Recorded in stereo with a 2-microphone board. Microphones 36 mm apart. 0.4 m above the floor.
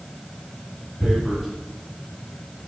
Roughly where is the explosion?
No explosion in this recording.